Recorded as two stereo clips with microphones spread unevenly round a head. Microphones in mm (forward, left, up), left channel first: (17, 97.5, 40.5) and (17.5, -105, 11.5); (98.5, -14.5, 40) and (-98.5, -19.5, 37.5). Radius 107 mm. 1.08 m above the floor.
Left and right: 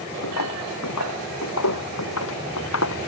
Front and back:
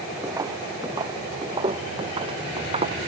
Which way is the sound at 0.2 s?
105° left.